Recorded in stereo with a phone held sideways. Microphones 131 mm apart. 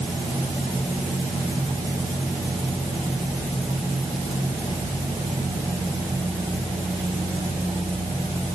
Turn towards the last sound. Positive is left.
No sound to turn to.